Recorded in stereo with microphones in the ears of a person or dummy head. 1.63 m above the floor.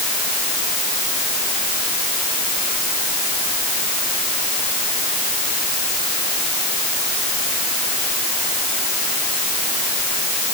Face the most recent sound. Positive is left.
No sound to turn to.